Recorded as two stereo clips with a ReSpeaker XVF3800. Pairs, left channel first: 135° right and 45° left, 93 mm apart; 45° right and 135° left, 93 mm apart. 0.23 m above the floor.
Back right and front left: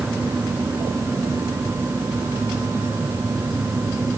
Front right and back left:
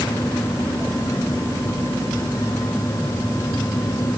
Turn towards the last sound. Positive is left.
No sound to turn to.